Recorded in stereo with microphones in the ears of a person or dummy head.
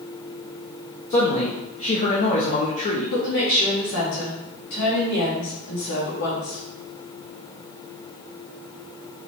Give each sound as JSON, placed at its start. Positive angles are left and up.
{"t": 1.1, "sound": "a man speaking", "side_deg": 40, "distance_m": 0.8}
{"t": 3.1, "sound": "a woman speaking", "side_deg": 70, "distance_m": 2.5}